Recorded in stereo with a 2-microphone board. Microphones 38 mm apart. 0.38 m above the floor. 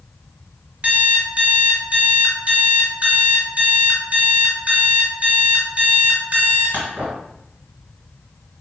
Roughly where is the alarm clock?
Right.